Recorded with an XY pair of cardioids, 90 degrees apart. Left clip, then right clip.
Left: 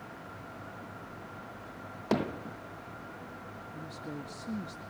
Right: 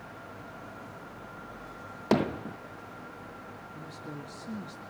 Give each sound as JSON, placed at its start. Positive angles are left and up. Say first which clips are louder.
{"t": 2.1, "sound": "hammering", "louder": "right 4 dB", "azimuth_deg": -30, "distance_m": 0.7}
{"t": 3.7, "sound": "a woman speaking", "louder": "left 1 dB", "azimuth_deg": 15, "distance_m": 2.5}